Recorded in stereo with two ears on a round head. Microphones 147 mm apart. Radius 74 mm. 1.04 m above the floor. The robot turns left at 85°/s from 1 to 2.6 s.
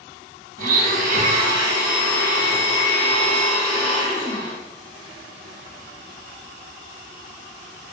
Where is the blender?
95° right, 1.5 m; by 4.6 s 130° left, 1.5 m.